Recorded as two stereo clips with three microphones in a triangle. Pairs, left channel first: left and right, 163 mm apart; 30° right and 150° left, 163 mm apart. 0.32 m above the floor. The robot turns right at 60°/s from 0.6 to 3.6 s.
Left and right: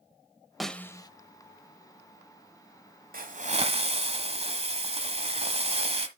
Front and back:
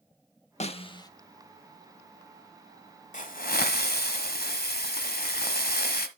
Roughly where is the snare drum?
Ahead.